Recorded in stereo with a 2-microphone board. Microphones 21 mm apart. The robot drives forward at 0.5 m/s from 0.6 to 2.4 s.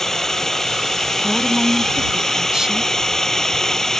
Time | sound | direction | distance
0.0 | a drone | 20° left (ahead or behind) | ?
1.2 | a woman speaking | 30° right (ahead or behind) | ?